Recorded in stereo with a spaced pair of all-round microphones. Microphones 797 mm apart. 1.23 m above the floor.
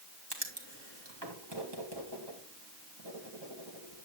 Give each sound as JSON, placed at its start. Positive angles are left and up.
{"t": 0.3, "sound": "writing", "side_deg": -30, "distance_m": 2.5}